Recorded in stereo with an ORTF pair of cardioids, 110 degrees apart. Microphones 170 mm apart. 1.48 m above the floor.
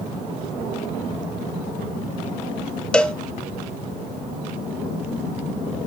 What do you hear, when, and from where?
2.9 s a cowbell: 5° left, 0.9 m